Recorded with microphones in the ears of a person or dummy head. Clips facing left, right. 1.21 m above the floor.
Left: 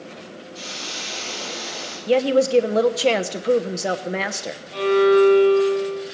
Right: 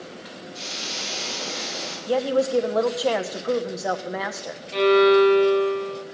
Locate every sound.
0.5 s a hiss: centre (ahead or behind), 10 m
2.1 s a woman speaking: 35° left (ahead or behind), 0.9 m
4.7 s a violin: 35° right (ahead or behind), 3 m